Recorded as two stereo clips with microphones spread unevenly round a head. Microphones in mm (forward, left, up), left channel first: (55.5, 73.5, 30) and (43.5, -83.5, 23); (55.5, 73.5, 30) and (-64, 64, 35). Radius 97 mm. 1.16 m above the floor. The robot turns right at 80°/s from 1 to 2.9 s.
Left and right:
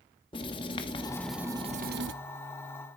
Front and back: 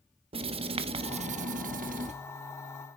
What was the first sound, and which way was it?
Writing, 150° left.